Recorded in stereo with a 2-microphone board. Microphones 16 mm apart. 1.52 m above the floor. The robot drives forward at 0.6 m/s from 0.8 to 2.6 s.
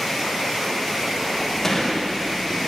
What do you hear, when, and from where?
1.6 s a gunshot: 25° left (ahead or behind), 1.1 m; by 2.1 s 20° left (ahead or behind), 1.4 m